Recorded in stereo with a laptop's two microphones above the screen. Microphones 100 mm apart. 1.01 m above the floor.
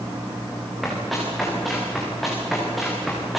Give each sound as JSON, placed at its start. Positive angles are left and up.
{"t": 0.8, "sound": "running footsteps", "side_deg": 0, "distance_m": 6.5}